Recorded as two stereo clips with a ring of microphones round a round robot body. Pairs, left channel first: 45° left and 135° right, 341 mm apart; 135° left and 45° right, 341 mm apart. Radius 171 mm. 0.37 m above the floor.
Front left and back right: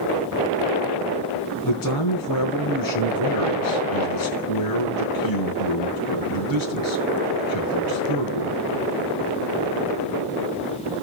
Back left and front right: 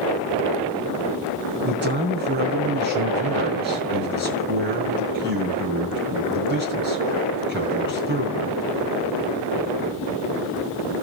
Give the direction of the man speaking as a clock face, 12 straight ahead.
11 o'clock.